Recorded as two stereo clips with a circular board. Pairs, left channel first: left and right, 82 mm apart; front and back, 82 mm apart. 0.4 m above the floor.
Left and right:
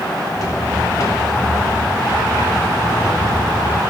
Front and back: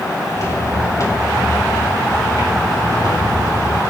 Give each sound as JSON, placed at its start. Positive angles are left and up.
{"t": 0.3, "sound": "footsteps", "azimuth_deg": 45, "distance_m": 6.5}